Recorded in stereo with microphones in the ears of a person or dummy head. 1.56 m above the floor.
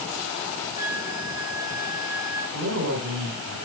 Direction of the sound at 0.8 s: 90° right.